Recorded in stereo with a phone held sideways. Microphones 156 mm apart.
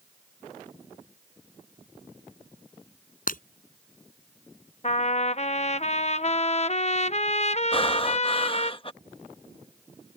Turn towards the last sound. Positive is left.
turn(degrees=35)  # may be behind; listen again after turning